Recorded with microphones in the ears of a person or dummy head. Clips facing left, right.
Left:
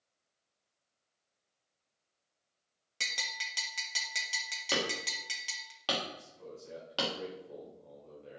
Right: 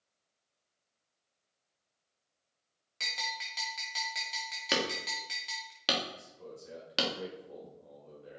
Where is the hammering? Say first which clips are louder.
Right 1 dB; 25° right (ahead or behind), 1.5 m.